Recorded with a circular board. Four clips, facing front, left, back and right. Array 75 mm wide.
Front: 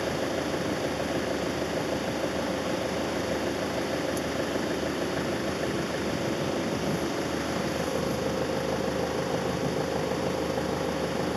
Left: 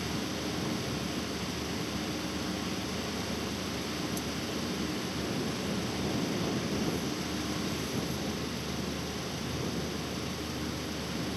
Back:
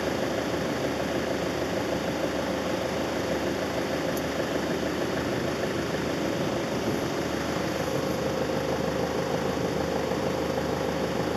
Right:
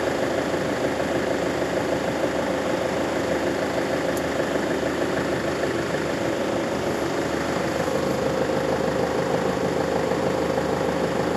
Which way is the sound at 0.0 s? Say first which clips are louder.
Right 12 dB, back 1 dB; 95° right.